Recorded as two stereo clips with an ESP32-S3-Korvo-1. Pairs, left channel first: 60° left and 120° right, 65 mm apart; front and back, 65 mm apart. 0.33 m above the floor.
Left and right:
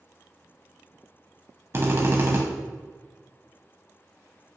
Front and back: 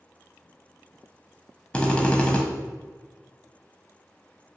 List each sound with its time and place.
1.7 s a drill: 75° right, 0.7 m